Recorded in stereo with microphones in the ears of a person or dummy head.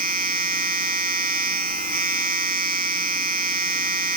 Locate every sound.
0.0 s a machine running: 50° right (ahead or behind)